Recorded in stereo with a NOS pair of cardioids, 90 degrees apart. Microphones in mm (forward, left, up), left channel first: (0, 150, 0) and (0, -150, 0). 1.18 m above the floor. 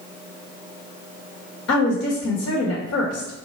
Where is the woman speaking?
45° left, 1.5 m.